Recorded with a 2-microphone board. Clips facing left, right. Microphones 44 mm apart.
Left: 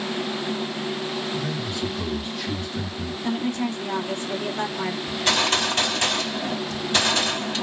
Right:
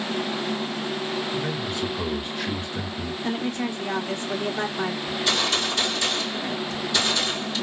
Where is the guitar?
No guitar in this recording.